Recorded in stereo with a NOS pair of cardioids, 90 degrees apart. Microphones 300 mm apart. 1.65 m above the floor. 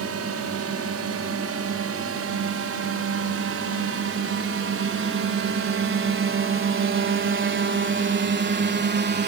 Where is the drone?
55° right; by 9.3 s 35° right.